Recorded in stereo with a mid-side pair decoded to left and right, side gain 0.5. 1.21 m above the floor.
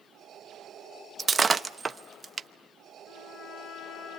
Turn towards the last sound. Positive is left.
turn(degrees=65)